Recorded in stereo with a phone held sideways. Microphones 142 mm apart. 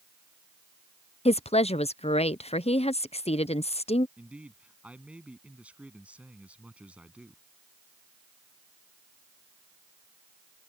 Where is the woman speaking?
45° left (ahead or behind).